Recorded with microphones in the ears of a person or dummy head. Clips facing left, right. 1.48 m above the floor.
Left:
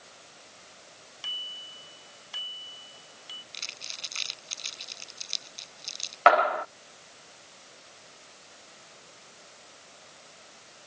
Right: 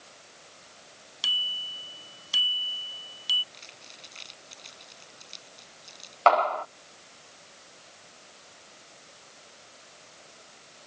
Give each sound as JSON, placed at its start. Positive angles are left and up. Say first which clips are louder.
{"t": 1.2, "sound": "a bicycle bell", "louder": "right 3 dB", "side_deg": -50}
{"t": 3.5, "sound": "crumpling", "louder": "left 1 dB", "side_deg": 70}
{"t": 6.3, "sound": "a clap", "louder": "left 1 dB", "side_deg": 20}